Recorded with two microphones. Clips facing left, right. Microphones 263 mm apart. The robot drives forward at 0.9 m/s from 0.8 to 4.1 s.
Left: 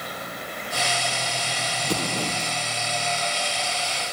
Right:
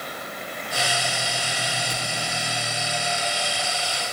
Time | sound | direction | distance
1.8 | an explosion | 80° left | ?